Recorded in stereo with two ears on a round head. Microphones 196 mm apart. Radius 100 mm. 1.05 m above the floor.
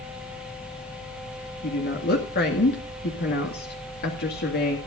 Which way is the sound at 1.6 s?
50° left (ahead or behind).